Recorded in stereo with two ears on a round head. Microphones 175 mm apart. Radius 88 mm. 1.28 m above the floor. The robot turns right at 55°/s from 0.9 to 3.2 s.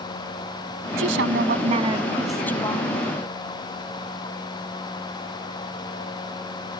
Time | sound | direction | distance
1.0 | a woman speaking | 75° right | ?